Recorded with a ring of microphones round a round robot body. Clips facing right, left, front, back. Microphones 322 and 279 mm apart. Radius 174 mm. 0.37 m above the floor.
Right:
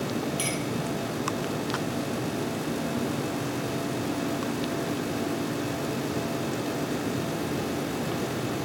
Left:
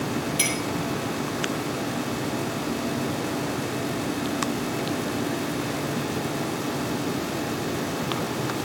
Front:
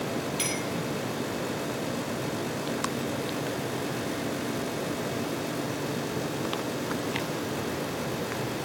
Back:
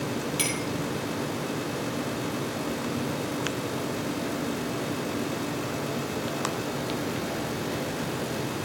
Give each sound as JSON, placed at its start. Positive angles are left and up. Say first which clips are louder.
{"t": 0.4, "sound": "a clink", "louder": "left 2 dB, back 1 dB", "azimuth_deg": 160, "distance_m": 3.0}